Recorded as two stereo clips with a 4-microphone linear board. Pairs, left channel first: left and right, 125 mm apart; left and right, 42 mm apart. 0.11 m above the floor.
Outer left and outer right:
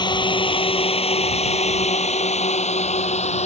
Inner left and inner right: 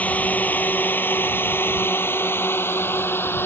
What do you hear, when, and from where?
0.0 s a drone: 40° left (ahead or behind); by 3.5 s 60° left (ahead or behind)